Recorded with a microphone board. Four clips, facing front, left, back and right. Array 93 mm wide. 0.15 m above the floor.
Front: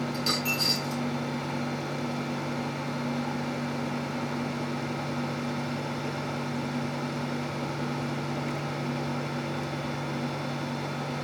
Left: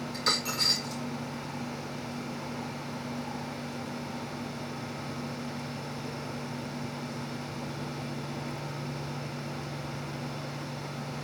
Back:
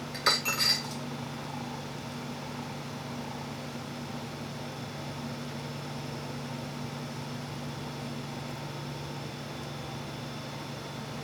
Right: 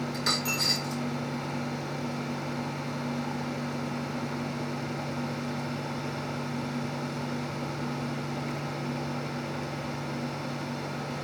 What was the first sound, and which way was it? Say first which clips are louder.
A dropped coin: right 2 dB, front 1 dB; 175° right.